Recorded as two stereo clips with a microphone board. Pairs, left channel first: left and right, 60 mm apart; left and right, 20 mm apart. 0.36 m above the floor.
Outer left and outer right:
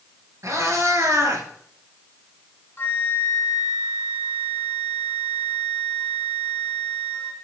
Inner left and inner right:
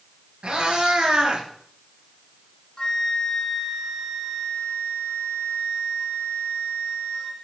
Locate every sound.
0.4 s a cat meowing: 55° right (ahead or behind), 4 m; by 1.4 s 50° right (ahead or behind), 3.5 m
2.8 s a flute: 40° left (ahead or behind), 1.9 m